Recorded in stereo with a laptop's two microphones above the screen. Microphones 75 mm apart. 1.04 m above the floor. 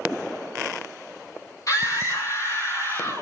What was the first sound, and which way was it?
A scream, 50° left (ahead or behind).